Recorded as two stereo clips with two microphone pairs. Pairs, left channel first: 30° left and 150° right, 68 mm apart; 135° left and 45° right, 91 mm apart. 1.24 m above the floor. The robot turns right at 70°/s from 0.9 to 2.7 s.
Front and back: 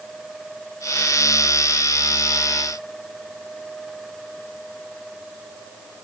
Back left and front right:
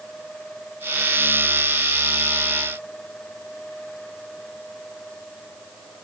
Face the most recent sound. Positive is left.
No sound to turn to.